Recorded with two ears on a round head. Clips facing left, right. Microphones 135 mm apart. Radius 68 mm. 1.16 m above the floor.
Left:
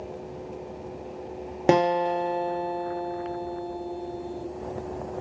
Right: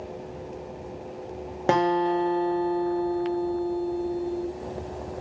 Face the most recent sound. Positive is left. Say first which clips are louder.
# left 1 dB
turn(degrees=20)  # may be behind; listen again after turning